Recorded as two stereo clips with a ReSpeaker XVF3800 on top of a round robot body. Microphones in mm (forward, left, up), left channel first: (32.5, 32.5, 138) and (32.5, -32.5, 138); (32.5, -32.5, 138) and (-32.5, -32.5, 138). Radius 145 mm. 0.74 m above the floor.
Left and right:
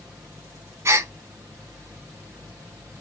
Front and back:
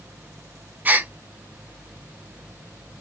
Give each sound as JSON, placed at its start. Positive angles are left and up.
{"t": 0.8, "sound": "a gasp", "azimuth_deg": -125, "distance_m": 0.8}